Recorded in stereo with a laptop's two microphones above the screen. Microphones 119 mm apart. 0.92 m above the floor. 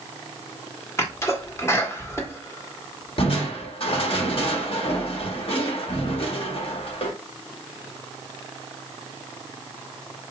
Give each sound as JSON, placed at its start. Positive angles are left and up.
{"t": 1.0, "sound": "a sneeze", "side_deg": 25, "distance_m": 1.2}
{"t": 3.2, "sound": "crushing", "side_deg": 55, "distance_m": 0.9}